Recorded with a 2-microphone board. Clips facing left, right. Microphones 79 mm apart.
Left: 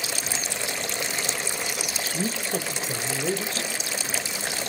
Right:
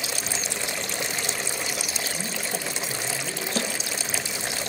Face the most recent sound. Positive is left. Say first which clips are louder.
# right 4 dB
turn(degrees=-60)  # may be behind; listen again after turning